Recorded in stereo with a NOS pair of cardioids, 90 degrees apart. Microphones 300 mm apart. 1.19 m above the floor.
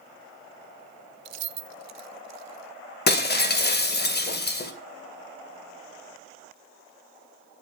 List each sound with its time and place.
1.2 s keys jangling: 65° right, 0.7 m; by 2.7 s 75° right, 1.9 m
3.1 s breaking glass: 40° left, 2.5 m